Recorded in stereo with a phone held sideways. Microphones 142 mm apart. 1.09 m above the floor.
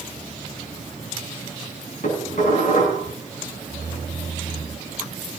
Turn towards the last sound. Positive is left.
turn(degrees=65)  # may be behind; listen again after turning